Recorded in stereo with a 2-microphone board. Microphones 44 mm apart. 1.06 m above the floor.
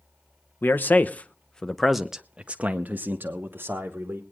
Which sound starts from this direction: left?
A man speaking, at 0.6 s.